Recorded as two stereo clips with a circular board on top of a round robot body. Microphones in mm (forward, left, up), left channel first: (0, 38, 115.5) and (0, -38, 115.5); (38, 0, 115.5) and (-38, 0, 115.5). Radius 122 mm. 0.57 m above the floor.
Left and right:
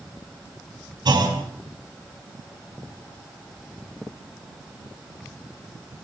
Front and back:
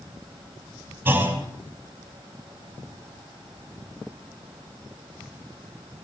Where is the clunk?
115° right, 5.5 m.